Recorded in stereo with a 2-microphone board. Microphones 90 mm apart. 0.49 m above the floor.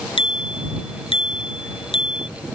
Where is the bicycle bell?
85° left.